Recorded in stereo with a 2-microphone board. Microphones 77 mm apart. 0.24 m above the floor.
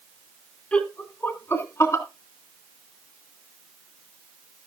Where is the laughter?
15° left (ahead or behind), 2 m; by 2.0 s 40° left (ahead or behind), 2.5 m.